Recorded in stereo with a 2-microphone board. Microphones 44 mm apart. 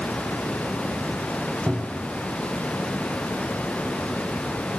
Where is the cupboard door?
25° right (ahead or behind), 8.5 m.